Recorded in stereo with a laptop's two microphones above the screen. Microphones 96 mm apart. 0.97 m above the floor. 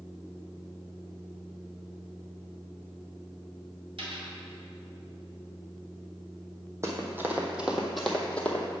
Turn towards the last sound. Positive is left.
turn(degrees=20)  # may be behind; listen again after turning